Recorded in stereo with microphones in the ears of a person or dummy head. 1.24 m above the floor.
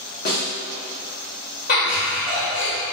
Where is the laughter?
75° left (ahead or behind), 1.4 m.